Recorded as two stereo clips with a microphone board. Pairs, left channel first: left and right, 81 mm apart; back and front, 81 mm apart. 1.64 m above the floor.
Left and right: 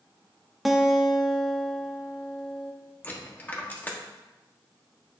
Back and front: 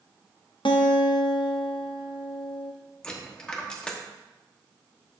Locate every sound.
0.7 s a guitar: straight behind, 0.7 m
3.0 s a dropped coin: 120° left, 1.1 m